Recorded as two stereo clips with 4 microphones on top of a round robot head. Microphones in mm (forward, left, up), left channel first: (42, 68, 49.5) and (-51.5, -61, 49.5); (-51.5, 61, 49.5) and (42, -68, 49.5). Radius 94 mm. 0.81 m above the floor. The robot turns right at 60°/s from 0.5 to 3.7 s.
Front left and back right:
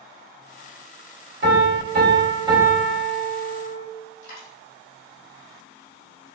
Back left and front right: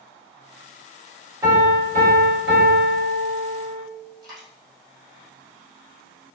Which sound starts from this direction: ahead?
A dropped coin, at 4.2 s.